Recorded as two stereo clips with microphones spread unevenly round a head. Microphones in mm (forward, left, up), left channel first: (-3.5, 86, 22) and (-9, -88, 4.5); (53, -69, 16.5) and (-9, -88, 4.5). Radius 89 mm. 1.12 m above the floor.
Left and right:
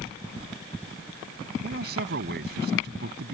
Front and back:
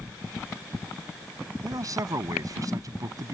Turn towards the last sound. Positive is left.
turn(degrees=-130)